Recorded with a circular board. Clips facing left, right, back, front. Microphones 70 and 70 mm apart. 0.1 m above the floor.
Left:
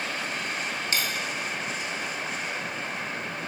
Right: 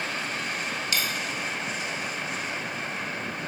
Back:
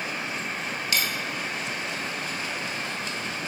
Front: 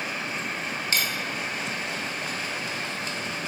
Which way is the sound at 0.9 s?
45° left.